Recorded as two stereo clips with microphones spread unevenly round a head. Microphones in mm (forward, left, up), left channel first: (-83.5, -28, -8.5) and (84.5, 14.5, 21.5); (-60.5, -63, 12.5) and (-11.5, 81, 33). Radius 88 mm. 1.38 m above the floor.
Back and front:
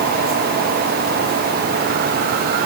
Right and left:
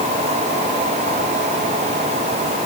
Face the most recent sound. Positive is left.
No sound to turn to.